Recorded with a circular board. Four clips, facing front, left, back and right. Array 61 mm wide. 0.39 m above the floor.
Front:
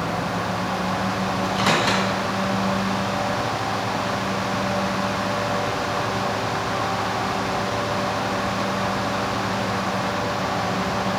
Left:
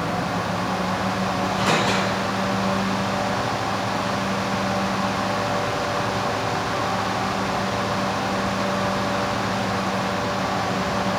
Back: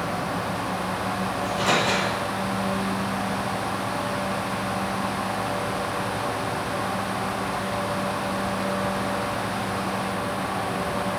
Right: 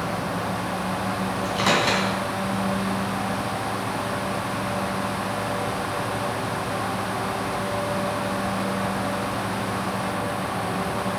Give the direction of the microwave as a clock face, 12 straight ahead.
1 o'clock.